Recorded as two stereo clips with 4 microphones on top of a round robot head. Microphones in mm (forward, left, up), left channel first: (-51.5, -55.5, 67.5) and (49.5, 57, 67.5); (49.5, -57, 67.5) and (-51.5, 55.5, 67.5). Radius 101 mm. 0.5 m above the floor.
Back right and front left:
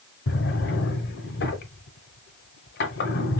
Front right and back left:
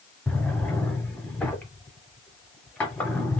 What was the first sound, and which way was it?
A drawer, 130° right.